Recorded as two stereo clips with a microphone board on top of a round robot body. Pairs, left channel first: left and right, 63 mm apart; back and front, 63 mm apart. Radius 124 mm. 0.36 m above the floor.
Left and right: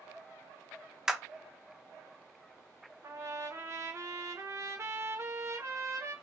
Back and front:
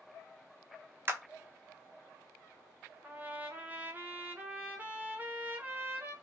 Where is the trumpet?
60° right, 1.4 m.